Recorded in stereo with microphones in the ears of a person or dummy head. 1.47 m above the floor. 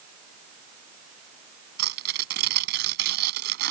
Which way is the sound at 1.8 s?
65° right (ahead or behind).